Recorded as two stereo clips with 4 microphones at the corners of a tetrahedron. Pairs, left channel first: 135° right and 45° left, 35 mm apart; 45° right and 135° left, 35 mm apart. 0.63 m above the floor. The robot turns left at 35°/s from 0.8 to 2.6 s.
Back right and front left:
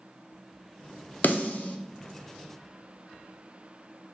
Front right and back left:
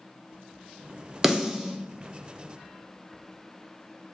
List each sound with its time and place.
1.2 s a snare drum: 145° right, 0.5 m; by 1.8 s 165° right, 0.5 m